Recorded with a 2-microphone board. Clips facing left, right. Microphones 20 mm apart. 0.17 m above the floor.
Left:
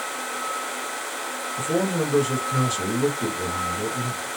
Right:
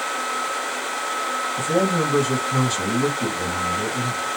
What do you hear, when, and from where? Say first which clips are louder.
1.6 s a man speaking: right 2 dB; 30° right (ahead or behind), 1.9 m